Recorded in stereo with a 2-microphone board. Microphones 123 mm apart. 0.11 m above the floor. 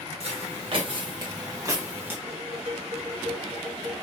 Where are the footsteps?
55° right (ahead or behind), 1.7 m; by 2.2 s 15° right (ahead or behind), 1.5 m.